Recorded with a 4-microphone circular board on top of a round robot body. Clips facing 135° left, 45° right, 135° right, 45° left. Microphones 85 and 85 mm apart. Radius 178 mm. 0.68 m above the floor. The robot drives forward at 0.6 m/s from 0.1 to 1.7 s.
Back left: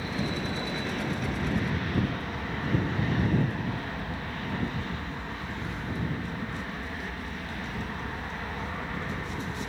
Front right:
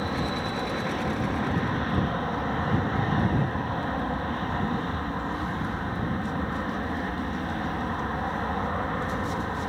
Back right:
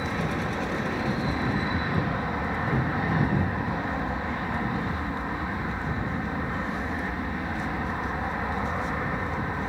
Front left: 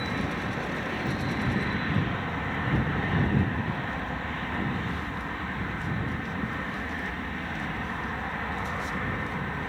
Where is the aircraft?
60° right; by 9.7 s 65° right.